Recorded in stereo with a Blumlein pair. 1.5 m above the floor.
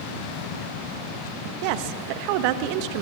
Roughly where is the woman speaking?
Ahead right.